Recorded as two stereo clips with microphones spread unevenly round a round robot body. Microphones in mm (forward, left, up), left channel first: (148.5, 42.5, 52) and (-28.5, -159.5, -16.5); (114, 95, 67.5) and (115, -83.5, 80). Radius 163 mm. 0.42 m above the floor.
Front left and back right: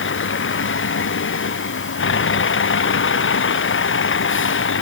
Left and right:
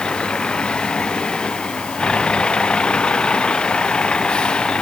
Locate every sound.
0.0 s a vehicle: 5° left